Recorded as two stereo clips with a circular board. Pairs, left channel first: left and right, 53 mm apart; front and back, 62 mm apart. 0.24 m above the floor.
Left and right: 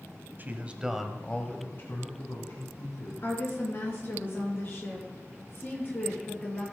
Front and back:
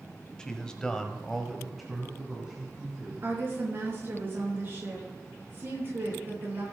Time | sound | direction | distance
0.4 | a man speaking | 70° right | 1.3 m
3.2 | a woman speaking | 130° left | 4 m